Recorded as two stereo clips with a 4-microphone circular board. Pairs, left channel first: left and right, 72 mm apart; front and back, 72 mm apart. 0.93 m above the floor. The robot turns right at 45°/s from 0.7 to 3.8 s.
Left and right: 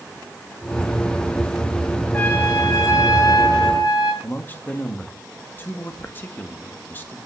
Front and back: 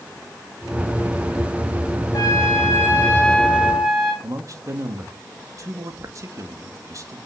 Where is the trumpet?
25° left, 3.5 m; by 4.1 s 100° left, 3.5 m.